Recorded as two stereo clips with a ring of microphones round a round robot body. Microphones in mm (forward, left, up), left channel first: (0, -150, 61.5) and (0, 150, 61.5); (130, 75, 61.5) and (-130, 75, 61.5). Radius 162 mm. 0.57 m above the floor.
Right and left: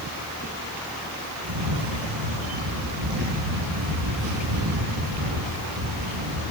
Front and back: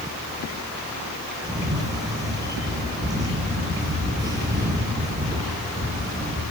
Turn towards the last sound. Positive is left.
turn(degrees=105)